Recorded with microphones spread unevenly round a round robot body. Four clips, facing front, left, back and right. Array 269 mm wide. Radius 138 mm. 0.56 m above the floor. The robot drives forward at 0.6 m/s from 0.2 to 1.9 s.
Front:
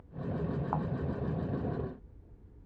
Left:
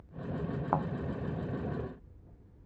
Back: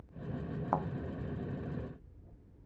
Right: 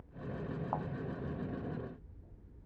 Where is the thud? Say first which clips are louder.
Left 8 dB, back 3 dB; 110° left.